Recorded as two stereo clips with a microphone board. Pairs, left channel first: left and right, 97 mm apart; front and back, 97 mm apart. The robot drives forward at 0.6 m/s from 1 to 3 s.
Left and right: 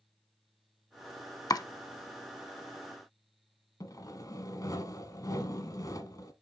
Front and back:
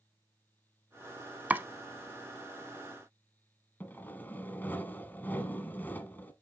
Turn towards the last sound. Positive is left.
turn(degrees=60)